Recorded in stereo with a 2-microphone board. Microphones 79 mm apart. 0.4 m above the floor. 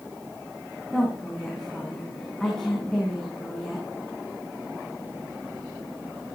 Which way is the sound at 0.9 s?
5° left (ahead or behind).